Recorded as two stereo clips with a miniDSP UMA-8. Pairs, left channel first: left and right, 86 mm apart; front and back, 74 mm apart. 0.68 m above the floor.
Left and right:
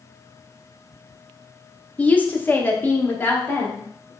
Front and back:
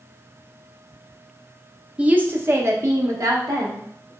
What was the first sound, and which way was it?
A woman speaking, 135° left.